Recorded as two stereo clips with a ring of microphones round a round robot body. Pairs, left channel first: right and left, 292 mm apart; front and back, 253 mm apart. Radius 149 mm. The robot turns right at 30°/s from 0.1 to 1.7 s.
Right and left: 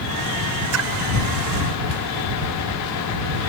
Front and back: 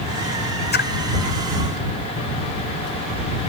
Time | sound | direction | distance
0.7 | a splash | 50° left | ?